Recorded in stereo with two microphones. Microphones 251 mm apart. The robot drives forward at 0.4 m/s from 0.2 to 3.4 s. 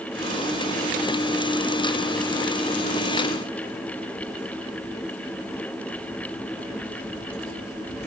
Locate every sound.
Only background noise.